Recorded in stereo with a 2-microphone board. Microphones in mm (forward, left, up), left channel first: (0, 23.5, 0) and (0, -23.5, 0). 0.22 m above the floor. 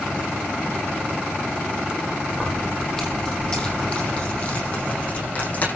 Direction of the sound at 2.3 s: 10° left (ahead or behind).